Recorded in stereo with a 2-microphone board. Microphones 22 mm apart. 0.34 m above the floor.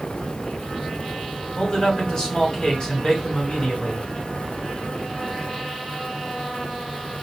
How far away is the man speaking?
About 2.5 m.